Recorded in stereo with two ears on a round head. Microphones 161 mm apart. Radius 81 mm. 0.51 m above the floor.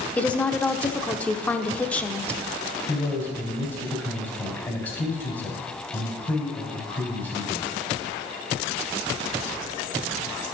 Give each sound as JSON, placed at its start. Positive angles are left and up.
{"t": 0.2, "sound": "a woman speaking", "side_deg": 10, "distance_m": 0.8}
{"t": 2.9, "sound": "a man speaking", "side_deg": 15, "distance_m": 3.0}